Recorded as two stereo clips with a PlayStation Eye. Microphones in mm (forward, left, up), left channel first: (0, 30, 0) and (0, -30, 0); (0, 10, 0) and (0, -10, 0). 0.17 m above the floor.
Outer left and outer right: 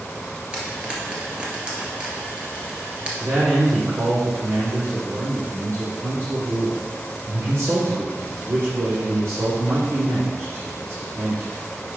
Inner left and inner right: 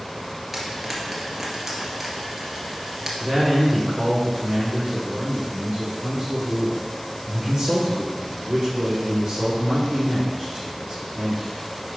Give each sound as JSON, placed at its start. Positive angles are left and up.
{"t": 0.5, "sound": "frying", "side_deg": -20, "distance_m": 2.0}
{"t": 3.2, "sound": "a man speaking", "side_deg": -45, "distance_m": 3.0}